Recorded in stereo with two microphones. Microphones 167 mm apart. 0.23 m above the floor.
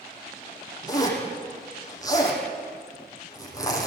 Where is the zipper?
20° left (ahead or behind), 7 m.